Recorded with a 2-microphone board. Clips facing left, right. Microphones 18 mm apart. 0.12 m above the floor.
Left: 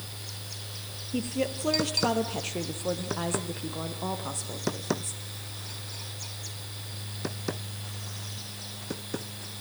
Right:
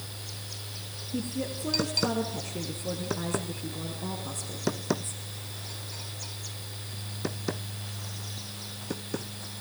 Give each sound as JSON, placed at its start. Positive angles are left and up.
{"t": 1.1, "sound": "a woman speaking", "side_deg": 50, "distance_m": 2.0}